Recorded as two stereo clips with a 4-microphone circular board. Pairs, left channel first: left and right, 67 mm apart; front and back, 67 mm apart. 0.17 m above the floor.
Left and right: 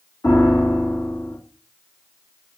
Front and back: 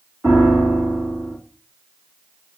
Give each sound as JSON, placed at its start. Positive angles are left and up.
{"t": 0.2, "sound": "a piano", "azimuth_deg": 85, "distance_m": 1.6}